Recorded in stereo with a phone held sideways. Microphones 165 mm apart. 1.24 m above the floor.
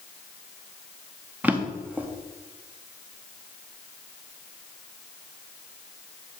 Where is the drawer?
10° right (ahead or behind), 0.7 m.